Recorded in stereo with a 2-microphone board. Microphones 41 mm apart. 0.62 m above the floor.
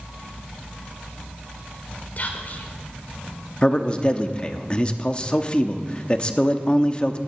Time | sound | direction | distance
2.2 | whispering | 45° left (ahead or behind) | 2.5 m
3.6 | a man speaking | 25° left (ahead or behind) | 0.9 m